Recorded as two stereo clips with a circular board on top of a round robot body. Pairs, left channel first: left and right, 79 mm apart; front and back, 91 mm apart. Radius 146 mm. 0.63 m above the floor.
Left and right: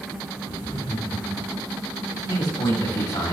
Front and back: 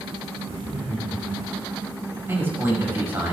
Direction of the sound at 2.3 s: 115° left.